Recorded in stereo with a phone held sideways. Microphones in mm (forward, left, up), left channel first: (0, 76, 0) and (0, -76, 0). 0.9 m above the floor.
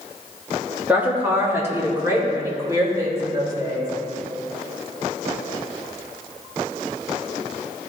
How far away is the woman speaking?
About 1.5 m.